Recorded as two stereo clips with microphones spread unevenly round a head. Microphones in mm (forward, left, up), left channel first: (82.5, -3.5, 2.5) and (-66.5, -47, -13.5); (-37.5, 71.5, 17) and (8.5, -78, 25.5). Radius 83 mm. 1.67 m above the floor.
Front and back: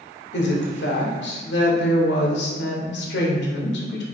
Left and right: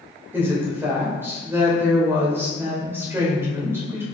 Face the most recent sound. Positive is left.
turn(degrees=5)